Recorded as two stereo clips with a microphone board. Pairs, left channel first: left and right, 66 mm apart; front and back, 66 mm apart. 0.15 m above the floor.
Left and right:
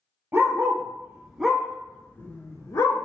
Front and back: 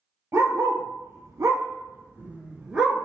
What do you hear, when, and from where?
0.3 s a dog barking: 140° right, 1.2 m; by 3.0 s 100° left, 0.9 m